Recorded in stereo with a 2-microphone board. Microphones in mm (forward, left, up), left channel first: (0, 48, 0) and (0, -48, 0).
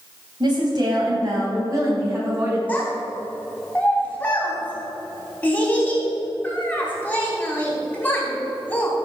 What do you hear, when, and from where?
0.4 s a woman speaking: 50° right (ahead or behind), 3 m; by 2.6 s 30° right (ahead or behind), 4.5 m
2.7 s a child speaking: 15° left (ahead or behind), 3.5 m